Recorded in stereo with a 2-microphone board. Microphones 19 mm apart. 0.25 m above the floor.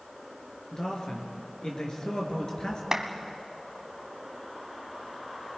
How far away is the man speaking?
About 4.5 m.